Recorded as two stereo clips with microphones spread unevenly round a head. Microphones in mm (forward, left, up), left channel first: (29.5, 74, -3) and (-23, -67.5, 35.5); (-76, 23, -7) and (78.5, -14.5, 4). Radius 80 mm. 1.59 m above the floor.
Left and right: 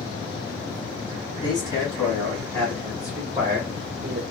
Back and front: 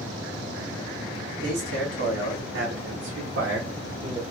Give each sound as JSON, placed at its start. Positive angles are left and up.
{"t": 1.4, "sound": "a man speaking", "azimuth_deg": 5, "distance_m": 1.6}